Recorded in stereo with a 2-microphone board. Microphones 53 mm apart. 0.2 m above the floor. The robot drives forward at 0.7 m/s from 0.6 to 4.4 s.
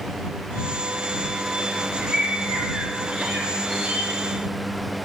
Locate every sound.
2.0 s a bird: 10° right (ahead or behind), 1.3 m; by 4.0 s 5° right (ahead or behind), 2.5 m